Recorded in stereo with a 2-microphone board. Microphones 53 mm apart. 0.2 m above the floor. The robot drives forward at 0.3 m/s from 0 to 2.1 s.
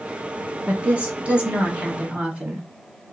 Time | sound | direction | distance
0.7 | a woman speaking | 25° right (ahead or behind) | 1.0 m